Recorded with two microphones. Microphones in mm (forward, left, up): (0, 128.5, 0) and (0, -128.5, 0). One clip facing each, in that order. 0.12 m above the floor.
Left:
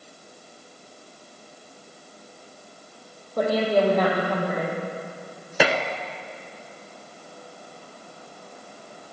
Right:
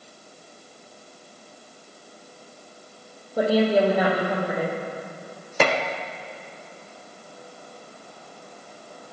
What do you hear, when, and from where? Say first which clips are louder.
3.4 s a woman speaking: right 2 dB; 10° right (ahead or behind), 4 m
5.6 s dishes clattering: even; 10° left (ahead or behind), 0.7 m